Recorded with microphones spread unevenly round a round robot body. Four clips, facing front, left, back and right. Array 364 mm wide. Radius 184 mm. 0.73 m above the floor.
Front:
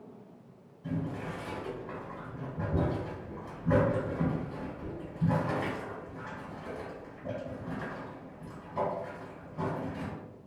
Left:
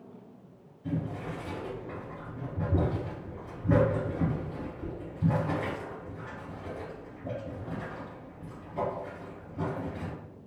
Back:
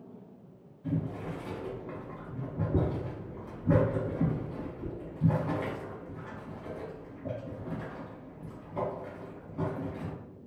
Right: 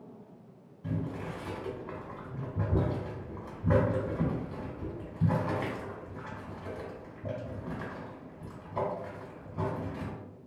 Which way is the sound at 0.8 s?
85° right.